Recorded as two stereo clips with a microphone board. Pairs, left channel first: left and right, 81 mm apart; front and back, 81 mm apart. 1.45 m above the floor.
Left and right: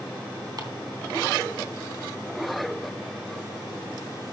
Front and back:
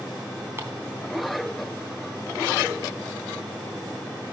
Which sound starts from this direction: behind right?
Ticking, at 0.6 s.